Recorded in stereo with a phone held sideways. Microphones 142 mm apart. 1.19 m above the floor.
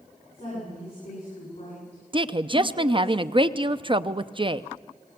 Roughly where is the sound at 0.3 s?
Left.